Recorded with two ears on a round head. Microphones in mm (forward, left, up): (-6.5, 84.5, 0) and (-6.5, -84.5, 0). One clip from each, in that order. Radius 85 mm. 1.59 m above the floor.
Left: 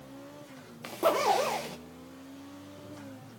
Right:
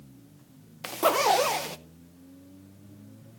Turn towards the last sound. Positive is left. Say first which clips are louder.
# right 3 dB
turn(degrees=-30)  # may be behind; listen again after turning